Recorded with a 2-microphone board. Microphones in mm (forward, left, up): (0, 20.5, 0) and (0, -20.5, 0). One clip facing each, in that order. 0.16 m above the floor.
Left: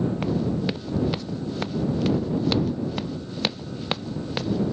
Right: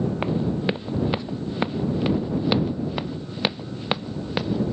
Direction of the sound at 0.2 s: 25° right (ahead or behind).